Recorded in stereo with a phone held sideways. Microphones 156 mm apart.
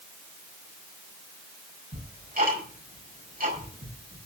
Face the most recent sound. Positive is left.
turn(degrees=-65)  # may be behind; listen again after turning